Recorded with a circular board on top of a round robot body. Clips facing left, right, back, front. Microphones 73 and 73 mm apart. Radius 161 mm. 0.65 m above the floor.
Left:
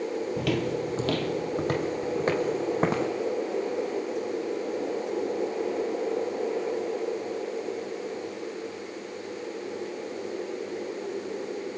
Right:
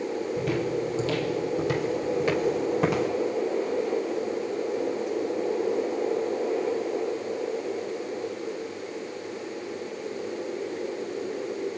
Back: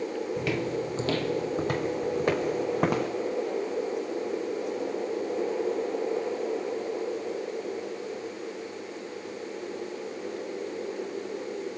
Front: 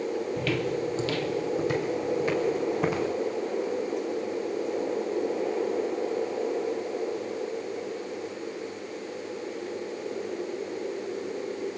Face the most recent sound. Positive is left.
turn(degrees=145)